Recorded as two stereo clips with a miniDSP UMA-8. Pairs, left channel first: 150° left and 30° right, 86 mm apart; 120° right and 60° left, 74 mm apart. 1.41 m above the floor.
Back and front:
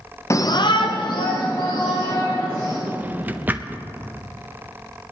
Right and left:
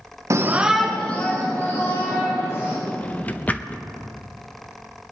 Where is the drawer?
75° right, 0.6 m.